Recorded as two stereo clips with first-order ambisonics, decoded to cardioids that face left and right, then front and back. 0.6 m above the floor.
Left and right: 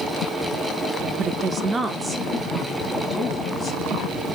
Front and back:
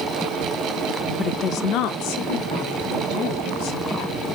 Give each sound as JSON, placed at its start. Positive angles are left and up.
{"t": 1.2, "sound": "a woman speaking", "azimuth_deg": -65, "distance_m": 0.6}